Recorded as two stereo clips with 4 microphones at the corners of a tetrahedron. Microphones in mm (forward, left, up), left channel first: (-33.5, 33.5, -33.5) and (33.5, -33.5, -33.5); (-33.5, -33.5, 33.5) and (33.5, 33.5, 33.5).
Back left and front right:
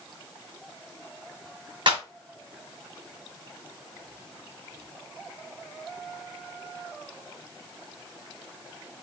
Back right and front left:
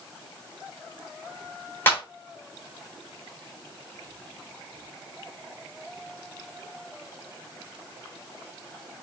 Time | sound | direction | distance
1.9 | a clap | 70° right | 1.7 m